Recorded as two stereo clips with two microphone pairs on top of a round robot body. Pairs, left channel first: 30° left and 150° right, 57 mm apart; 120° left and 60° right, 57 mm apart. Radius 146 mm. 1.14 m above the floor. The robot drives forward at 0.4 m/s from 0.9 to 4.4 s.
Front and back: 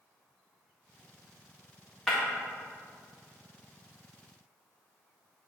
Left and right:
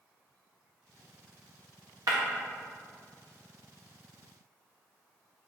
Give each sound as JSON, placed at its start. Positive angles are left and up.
{"t": 2.1, "sound": "breaking glass", "azimuth_deg": -55, "distance_m": 1.8}